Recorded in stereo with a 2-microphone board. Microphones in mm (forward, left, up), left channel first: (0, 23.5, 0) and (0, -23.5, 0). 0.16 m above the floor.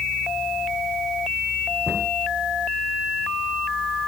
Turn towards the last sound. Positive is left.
turn(degrees=50)  # may be behind; listen again after turning